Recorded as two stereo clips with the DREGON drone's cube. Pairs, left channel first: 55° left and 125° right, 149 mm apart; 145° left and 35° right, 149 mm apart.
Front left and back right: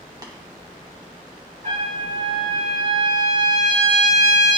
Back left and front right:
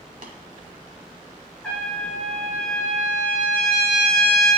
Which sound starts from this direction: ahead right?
Tapping, at 0.2 s.